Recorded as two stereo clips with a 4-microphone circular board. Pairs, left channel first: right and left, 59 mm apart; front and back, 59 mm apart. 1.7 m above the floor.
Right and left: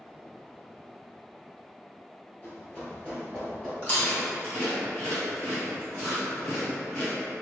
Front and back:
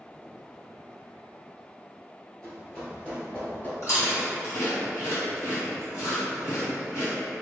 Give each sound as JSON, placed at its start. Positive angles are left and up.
{"t": 2.4, "sound": "running footsteps", "azimuth_deg": -70, "distance_m": 1.9}
{"t": 3.8, "sound": "chewing", "azimuth_deg": -35, "distance_m": 1.9}